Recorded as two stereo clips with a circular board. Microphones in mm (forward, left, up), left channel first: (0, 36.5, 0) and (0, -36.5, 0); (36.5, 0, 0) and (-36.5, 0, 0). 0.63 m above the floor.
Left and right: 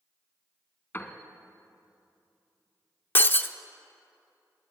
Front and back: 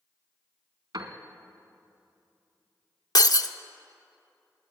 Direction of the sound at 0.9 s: 150° left.